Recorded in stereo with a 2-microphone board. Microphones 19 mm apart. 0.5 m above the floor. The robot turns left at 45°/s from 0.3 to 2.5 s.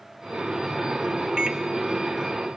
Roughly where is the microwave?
Right.